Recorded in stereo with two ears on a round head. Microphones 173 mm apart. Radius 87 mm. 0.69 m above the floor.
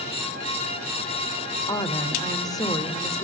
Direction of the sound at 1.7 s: 20° left (ahead or behind).